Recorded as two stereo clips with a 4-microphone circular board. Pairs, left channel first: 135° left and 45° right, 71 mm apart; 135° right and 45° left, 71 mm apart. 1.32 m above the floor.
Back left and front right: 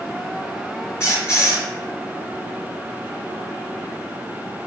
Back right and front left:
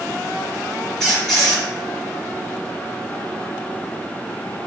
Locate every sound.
1.0 s a squeak: 140° left, 1.5 m